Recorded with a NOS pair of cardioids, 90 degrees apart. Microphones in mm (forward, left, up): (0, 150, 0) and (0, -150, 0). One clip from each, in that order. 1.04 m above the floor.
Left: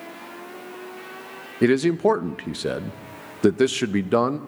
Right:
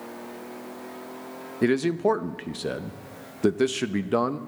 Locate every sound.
1.6 s a man speaking: 15° left, 0.6 m